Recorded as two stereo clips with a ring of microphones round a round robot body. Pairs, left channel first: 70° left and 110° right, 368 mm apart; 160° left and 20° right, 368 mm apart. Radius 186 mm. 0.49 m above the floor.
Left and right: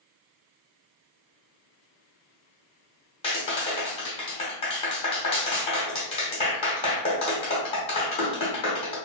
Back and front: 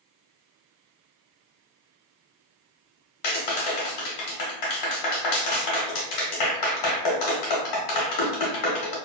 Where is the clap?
140° left, 0.9 m.